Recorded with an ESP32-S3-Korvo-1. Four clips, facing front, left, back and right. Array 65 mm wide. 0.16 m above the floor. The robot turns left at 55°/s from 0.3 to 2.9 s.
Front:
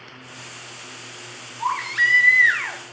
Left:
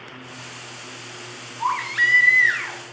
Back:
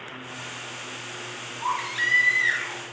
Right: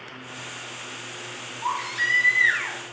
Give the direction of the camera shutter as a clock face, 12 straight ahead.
I don't hear a camera shutter.